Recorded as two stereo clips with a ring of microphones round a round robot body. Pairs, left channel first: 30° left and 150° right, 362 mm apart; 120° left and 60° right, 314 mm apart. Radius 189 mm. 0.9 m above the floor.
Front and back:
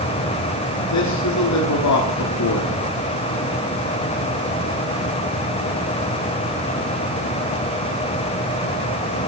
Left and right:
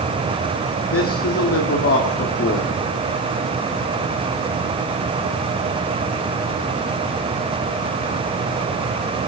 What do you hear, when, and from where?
0.9 s a man speaking: 75° left, 2.5 m